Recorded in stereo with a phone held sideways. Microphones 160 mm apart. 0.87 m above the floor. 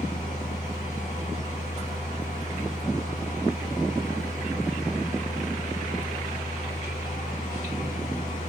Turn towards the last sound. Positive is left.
turn(degrees=50)  # may be behind; listen again after turning